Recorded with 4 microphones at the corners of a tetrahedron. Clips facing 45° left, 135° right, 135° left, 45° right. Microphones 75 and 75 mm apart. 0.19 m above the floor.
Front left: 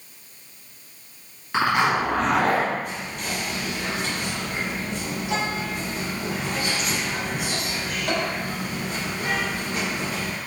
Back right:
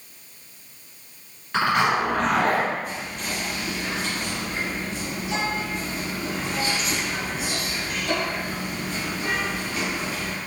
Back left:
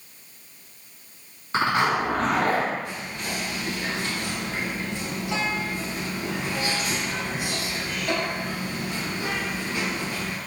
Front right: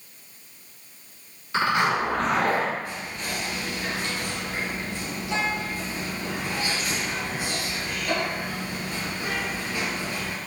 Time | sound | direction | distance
1.5 | a zipper | 120° left | 1.9 m
2.8 | whispering | 65° left | 1.5 m